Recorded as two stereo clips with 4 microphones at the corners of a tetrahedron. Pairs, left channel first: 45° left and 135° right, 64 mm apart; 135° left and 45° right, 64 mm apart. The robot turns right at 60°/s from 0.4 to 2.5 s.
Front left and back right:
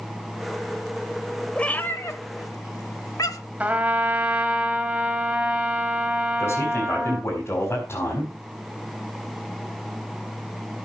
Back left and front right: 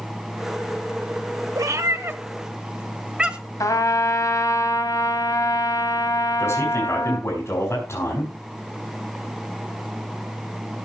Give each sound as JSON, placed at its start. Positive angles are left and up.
{"t": 1.6, "sound": "a cat meowing", "azimuth_deg": -30, "distance_m": 1.1}
{"t": 3.6, "sound": "a trumpet", "azimuth_deg": 160, "distance_m": 1.8}
{"t": 6.4, "sound": "a man speaking", "azimuth_deg": 90, "distance_m": 4.5}